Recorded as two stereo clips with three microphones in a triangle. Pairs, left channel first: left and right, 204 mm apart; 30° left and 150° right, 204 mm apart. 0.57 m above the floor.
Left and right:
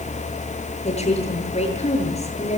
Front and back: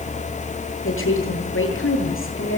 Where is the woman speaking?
30° left, 9 m.